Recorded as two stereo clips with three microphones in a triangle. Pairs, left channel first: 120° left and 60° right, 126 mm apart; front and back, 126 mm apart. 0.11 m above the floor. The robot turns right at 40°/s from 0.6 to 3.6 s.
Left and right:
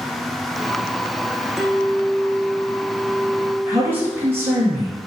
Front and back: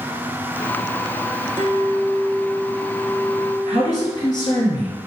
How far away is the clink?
About 0.8 m.